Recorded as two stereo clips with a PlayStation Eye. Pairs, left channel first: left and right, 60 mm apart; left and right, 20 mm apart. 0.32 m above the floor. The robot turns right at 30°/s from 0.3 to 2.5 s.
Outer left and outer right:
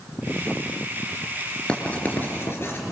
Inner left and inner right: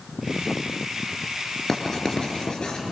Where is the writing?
15° left (ahead or behind), 3 m; by 2.8 s 40° left (ahead or behind), 3 m.